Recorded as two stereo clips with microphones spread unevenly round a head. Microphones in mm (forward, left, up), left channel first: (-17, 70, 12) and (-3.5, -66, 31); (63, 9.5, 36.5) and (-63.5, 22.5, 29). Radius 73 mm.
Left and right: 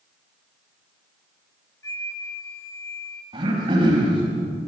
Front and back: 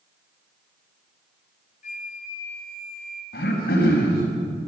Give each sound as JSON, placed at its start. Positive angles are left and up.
{"t": 1.8, "sound": "a flute", "azimuth_deg": 25, "distance_m": 2.0}
{"t": 3.3, "sound": "throat clearing", "azimuth_deg": -30, "distance_m": 4.5}